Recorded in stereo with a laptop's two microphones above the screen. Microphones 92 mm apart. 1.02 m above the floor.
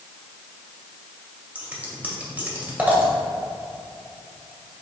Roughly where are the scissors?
Centre.